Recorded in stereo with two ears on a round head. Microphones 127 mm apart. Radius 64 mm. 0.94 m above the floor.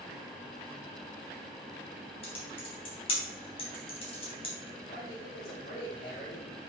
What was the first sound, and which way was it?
Typing on a keyboard, 40° left (ahead or behind).